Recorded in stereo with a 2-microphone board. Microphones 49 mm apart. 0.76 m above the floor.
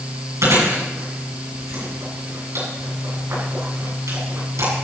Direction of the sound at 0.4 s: 75° right (ahead or behind).